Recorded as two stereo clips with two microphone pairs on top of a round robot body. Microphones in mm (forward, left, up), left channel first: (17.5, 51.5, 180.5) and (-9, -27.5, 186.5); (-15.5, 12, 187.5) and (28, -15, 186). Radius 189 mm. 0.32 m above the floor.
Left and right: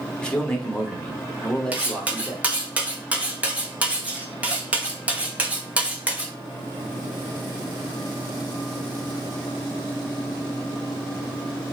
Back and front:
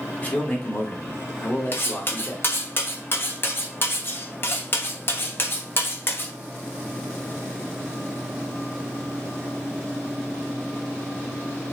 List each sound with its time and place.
0.2 s a man speaking: 135° left, 1.3 m
1.7 s cutlery clinking: straight behind, 0.9 m